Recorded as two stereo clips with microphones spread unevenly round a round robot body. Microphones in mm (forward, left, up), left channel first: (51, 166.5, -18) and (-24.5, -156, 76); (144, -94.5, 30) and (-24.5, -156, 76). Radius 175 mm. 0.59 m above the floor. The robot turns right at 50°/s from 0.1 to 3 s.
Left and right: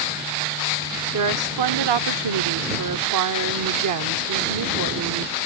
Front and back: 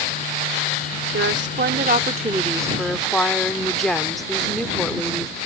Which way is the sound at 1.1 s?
155° right.